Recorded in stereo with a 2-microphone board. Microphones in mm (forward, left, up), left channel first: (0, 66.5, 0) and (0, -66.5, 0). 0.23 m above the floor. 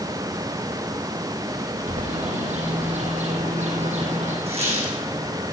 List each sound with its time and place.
1.9 s a bird: 60° right (ahead or behind), 5 m
4.5 s a squeak: 50° right (ahead or behind), 7 m